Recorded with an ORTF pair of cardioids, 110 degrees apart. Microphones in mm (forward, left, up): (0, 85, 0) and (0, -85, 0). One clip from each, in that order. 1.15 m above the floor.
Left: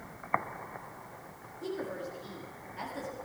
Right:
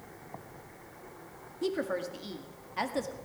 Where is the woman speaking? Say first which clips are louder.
Right 5 dB; 60° right, 1.7 m.